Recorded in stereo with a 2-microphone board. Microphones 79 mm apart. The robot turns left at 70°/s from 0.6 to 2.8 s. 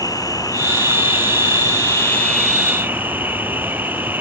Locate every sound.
0.0 s an insect: 130° left; by 4.2 s 20° right